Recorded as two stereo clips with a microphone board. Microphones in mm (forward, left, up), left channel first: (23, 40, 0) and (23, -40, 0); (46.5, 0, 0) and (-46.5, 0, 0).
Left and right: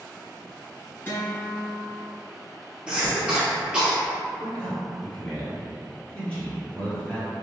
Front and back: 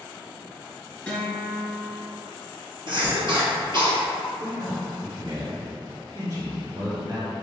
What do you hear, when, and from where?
1.1 s a guitar: 60° left, 1.6 m
2.9 s a cough: 165° right, 2.0 m
4.4 s a man speaking: 160° left, 1.9 m